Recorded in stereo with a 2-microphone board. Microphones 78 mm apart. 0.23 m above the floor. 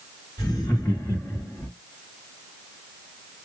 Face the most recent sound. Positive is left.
turn(degrees=20)  # may be behind; listen again after turning